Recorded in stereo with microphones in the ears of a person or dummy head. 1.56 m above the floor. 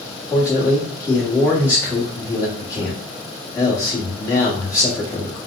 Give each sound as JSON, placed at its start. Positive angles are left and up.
{"t": 0.3, "sound": "a man speaking", "side_deg": 20, "distance_m": 1.1}